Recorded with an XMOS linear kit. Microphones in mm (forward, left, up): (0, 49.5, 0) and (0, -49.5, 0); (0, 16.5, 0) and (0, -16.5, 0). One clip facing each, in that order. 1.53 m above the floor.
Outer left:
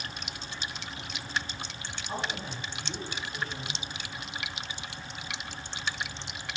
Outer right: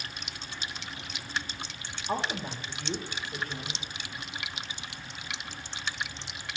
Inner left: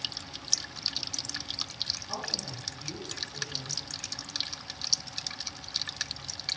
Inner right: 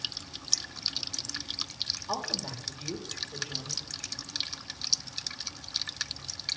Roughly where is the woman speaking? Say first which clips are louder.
Outer right 4 dB, inner right 2 dB; right.